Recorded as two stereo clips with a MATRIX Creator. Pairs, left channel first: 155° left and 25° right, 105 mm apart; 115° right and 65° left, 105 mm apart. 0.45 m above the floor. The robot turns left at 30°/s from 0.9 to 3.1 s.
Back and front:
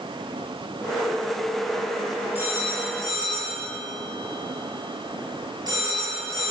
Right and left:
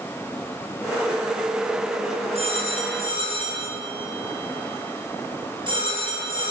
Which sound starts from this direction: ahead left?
A phone ringing, at 2.4 s.